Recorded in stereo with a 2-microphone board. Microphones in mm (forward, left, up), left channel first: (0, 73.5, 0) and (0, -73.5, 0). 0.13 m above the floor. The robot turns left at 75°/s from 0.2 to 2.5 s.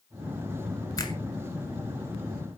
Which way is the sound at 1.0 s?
30° left (ahead or behind).